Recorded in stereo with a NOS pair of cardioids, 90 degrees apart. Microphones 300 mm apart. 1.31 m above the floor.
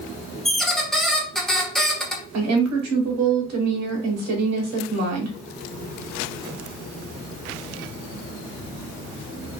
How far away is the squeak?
About 0.7 m.